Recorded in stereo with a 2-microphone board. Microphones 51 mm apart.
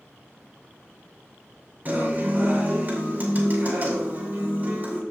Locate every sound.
1.9 s a guitar: 35° right (ahead or behind), 2.5 m